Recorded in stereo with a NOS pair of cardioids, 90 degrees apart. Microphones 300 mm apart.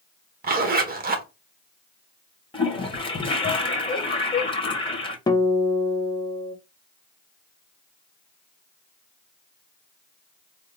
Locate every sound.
0.4 s a zipper: 30° right, 1.0 m
2.5 s a toilet flushing: 15° left, 1.3 m
5.3 s a guitar: 15° left, 0.8 m